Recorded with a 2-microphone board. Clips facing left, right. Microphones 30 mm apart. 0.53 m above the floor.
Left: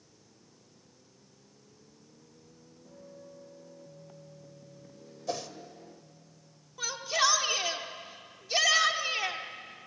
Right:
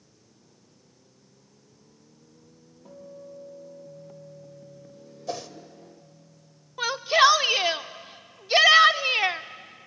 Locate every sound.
2.9 s a guitar: 50° right (ahead or behind), 7 m
5.3 s a whoosh: 5° right (ahead or behind), 1.2 m
6.8 s a shout: 40° right (ahead or behind), 0.9 m